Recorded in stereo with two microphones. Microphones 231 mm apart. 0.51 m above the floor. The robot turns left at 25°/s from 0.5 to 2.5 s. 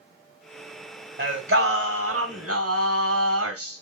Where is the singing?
60° right, 1.2 m; by 3.8 s 90° right, 1.2 m.